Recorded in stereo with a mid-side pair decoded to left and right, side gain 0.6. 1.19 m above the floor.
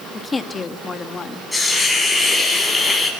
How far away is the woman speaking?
About 2.5 m.